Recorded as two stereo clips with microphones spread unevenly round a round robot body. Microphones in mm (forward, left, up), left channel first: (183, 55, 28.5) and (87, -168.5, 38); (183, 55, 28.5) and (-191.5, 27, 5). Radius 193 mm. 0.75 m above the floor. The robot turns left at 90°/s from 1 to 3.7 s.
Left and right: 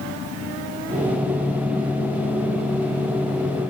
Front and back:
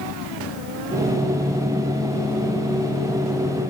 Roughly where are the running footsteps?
No running footsteps in this recording.